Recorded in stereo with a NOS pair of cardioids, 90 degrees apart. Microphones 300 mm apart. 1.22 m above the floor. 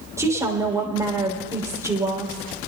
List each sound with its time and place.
0.2 s a woman speaking: 10° right, 3.5 m